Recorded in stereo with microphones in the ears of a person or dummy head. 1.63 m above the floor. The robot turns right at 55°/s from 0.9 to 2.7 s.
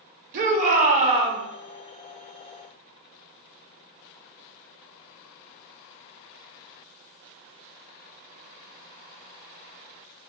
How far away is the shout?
About 0.9 m.